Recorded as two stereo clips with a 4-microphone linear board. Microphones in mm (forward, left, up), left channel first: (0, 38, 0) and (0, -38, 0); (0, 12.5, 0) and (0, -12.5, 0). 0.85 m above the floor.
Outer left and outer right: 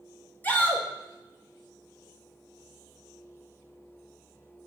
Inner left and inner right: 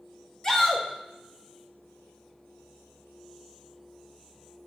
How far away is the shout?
About 1.4 m.